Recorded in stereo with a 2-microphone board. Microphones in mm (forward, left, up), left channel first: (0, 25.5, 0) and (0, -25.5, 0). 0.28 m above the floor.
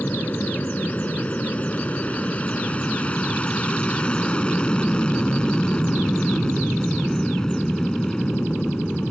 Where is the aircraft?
35° left (ahead or behind); by 9.1 s 10° left (ahead or behind).